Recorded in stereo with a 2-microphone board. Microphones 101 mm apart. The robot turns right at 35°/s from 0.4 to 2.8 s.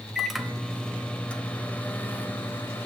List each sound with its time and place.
0.1 s a microwave: centre (ahead or behind), 0.7 m; by 2.9 s 25° left (ahead or behind), 0.7 m